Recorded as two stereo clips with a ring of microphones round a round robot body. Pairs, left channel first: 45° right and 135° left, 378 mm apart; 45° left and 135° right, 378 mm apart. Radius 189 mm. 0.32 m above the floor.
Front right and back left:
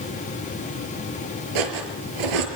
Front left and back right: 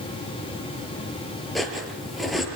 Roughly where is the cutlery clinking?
Behind left.